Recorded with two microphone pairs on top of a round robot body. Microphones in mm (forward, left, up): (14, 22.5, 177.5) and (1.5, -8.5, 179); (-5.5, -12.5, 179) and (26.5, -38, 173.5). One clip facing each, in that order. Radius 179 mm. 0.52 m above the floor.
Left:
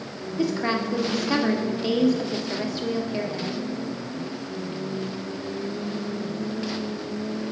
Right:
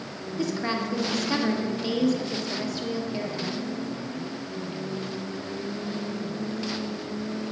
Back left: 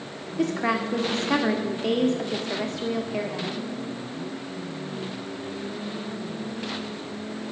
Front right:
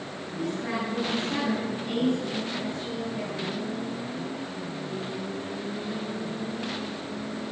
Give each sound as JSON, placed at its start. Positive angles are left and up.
{"t": 0.4, "sound": "a woman speaking", "azimuth_deg": 140, "distance_m": 1.8}